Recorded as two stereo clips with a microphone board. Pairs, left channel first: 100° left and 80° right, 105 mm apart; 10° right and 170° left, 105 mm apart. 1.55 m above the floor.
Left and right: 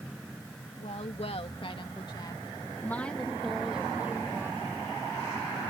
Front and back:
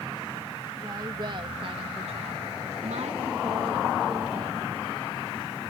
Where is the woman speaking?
115° left; by 4.9 s 145° right.